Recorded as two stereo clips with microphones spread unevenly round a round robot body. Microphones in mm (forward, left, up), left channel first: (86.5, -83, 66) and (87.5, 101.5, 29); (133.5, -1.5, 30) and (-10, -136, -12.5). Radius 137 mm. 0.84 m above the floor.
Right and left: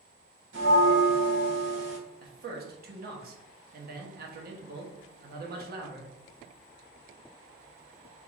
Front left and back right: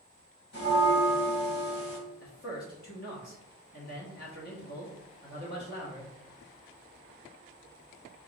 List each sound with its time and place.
0.5 s a bell: 75° left, 1.5 m
2.2 s a man speaking: 100° left, 0.9 m